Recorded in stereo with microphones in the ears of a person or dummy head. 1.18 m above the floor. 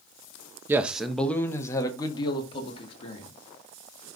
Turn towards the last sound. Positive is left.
turn(degrees=40)  # may be behind; listen again after turning